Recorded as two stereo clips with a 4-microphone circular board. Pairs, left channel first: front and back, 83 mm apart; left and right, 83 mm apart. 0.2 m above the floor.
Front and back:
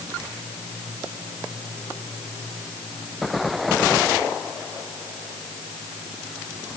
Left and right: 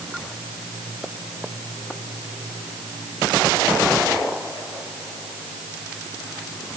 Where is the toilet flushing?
No toilet flushing in this recording.